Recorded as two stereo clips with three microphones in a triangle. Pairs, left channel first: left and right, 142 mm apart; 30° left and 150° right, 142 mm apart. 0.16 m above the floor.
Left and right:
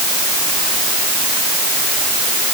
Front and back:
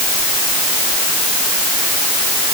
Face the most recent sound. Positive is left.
No sound to turn to.